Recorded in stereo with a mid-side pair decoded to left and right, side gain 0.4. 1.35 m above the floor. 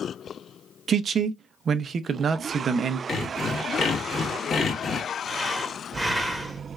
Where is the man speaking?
60° right, 0.5 m.